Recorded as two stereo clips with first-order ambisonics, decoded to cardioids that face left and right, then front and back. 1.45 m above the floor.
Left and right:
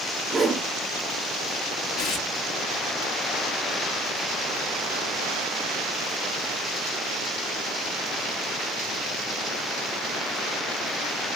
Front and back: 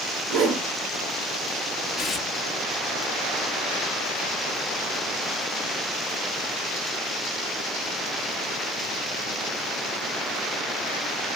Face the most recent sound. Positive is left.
turn(degrees=65)